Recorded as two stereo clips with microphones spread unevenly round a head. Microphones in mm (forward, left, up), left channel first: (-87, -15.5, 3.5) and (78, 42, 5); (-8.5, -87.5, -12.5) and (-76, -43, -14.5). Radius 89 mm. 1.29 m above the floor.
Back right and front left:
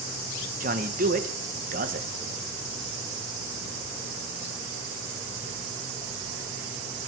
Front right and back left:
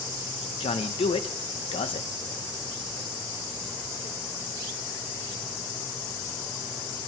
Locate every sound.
0.6 s a man speaking: 30° right, 1.0 m